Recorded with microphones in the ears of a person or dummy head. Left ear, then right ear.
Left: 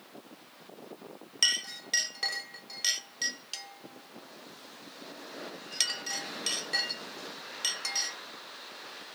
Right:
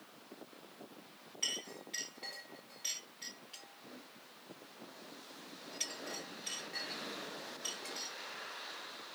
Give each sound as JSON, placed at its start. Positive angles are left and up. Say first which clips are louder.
{"t": 1.4, "sound": "a clink", "louder": "left 11 dB", "side_deg": 60, "distance_m": 1.3}